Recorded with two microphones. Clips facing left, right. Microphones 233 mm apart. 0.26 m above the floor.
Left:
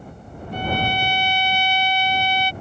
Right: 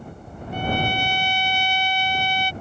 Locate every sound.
0.5 s a trumpet: 55° right (ahead or behind)